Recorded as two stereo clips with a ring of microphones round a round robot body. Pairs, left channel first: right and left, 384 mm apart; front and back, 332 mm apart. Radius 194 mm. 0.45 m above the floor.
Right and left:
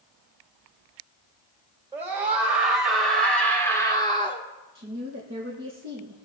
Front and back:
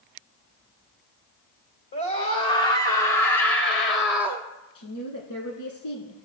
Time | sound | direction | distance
1.9 | a scream | 5° left | 2 m
4.8 | a woman speaking | 25° left | 5.5 m